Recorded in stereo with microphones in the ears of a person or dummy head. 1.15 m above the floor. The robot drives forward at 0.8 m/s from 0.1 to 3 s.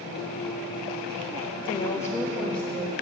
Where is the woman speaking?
30° left (ahead or behind), 0.6 m; by 2.9 s 10° left (ahead or behind), 1.6 m.